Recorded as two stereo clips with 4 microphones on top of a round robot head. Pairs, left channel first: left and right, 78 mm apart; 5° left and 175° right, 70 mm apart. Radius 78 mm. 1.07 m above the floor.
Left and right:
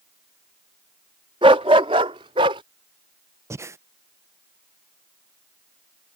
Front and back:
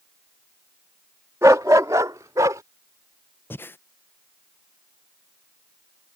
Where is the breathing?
50° right.